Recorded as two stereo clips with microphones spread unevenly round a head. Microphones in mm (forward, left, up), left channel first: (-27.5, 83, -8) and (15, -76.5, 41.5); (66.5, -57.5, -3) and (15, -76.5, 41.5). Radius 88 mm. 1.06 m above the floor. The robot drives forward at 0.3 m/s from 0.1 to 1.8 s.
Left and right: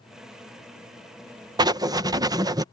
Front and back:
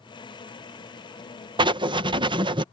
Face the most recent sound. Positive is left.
turn(degrees=-155)